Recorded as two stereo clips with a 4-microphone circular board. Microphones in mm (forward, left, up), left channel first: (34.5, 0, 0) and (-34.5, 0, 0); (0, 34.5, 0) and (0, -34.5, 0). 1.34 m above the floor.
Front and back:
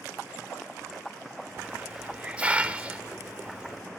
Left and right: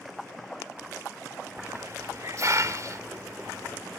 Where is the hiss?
115° right, 1.4 m.